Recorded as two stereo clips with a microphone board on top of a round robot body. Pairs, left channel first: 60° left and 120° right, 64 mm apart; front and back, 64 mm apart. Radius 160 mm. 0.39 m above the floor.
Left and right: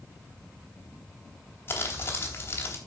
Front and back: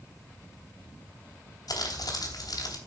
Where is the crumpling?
5° left, 3 m.